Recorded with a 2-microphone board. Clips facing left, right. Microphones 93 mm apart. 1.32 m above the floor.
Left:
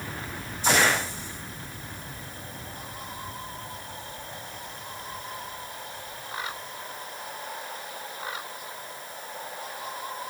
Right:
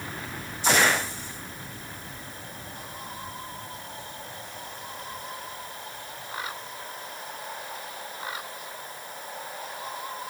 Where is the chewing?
I don't hear chewing.